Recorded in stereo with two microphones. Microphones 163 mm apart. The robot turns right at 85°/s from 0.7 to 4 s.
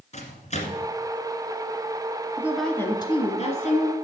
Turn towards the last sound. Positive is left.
turn(degrees=120)